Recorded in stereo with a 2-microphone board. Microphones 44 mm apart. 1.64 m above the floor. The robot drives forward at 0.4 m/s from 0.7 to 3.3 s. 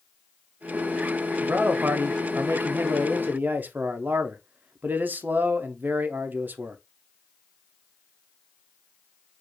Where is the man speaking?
45° right (ahead or behind), 0.6 m.